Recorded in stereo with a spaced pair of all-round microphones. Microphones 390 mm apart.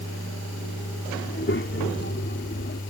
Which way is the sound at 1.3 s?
30° left (ahead or behind).